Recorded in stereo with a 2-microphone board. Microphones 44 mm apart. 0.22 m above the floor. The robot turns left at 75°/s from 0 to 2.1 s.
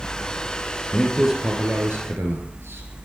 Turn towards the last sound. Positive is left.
turn(degrees=-65)